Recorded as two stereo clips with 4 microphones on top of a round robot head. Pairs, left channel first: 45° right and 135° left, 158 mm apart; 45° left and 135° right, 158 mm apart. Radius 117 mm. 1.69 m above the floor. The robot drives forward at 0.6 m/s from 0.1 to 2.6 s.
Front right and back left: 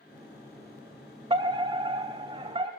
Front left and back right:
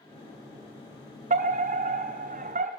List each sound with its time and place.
1.3 s a fire alarm: 170° right, 2.5 m